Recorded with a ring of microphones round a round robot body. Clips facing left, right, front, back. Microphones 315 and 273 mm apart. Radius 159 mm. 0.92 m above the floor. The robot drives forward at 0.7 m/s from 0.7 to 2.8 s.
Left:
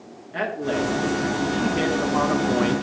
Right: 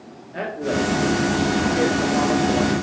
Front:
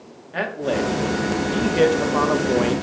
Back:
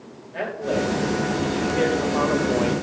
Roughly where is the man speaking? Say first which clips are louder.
Right 1 dB, front 1 dB; ahead.